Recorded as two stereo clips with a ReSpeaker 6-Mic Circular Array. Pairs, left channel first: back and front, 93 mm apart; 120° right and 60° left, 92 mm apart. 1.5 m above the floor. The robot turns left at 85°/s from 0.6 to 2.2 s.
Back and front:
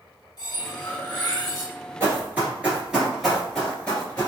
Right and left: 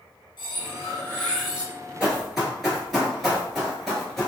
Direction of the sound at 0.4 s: 140° right.